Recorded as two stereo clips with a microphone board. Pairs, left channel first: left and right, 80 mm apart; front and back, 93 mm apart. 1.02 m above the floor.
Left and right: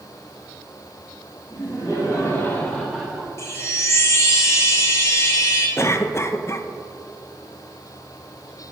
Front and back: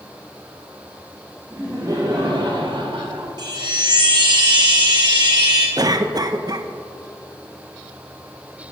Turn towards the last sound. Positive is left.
turn(degrees=140)